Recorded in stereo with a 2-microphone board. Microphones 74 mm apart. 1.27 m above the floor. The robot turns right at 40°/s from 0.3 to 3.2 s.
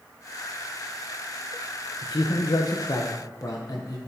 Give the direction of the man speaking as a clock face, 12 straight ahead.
9 o'clock.